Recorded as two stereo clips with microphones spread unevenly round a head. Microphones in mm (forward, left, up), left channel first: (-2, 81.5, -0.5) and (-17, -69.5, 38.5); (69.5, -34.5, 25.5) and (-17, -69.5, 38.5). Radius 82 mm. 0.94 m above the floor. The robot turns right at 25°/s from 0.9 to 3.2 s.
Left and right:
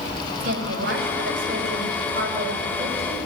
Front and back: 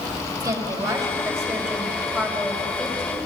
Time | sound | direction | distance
0.4 | a woman speaking | 110° right | 5 m